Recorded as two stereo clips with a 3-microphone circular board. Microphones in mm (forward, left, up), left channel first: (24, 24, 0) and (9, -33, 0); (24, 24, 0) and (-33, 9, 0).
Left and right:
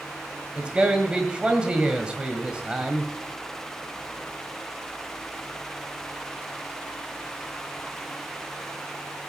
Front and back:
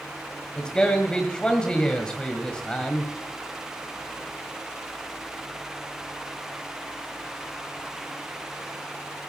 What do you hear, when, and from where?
0.6 s a man speaking: 50° right, 1.6 m